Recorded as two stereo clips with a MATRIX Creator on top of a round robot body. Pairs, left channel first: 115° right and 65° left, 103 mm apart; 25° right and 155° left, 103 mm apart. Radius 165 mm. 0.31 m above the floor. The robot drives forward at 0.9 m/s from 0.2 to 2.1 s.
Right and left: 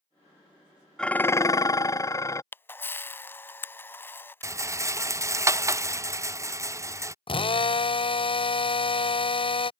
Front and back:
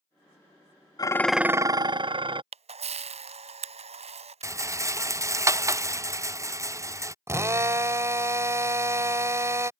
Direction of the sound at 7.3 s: 140° right.